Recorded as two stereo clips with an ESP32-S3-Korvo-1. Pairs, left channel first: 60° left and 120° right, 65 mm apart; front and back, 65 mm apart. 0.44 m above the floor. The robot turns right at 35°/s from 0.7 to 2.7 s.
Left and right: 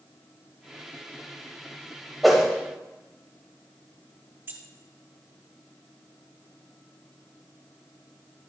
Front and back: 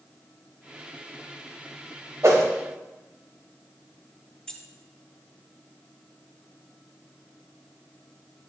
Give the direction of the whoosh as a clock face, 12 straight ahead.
7 o'clock.